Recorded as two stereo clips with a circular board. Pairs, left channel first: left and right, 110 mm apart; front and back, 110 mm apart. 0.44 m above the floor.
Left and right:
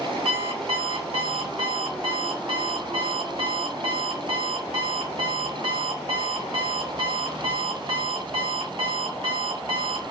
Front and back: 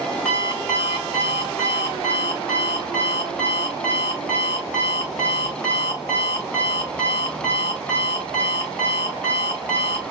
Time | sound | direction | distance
0.2 | an alarm clock | 80° right | 1.4 m